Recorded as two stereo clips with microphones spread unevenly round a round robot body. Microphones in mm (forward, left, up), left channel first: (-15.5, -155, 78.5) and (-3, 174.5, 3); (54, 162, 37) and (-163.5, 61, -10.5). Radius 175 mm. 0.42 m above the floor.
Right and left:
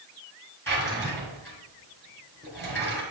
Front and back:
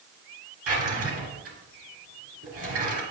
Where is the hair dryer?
I don't hear a hair dryer.